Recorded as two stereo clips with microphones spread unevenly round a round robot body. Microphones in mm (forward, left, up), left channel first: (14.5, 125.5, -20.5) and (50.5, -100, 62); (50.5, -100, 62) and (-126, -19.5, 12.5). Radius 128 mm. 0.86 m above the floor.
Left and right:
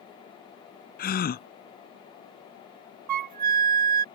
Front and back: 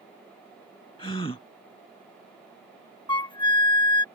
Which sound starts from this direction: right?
A flute, at 3.1 s.